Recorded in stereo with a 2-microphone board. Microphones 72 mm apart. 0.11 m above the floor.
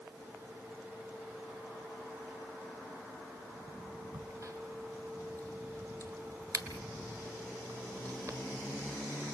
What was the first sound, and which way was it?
A crack, 55° right (ahead or behind).